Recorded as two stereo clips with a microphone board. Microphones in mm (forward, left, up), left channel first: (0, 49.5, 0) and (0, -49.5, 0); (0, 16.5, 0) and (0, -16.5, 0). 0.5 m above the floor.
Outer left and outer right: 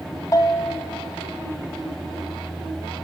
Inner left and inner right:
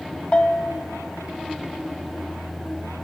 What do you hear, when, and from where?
0.3 s a bell: 40° left (ahead or behind), 1.4 m